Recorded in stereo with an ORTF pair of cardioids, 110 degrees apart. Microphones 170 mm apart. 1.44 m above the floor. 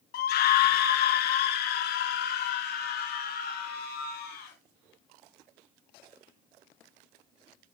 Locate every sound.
0.1 s a scream: 70° left, 1.0 m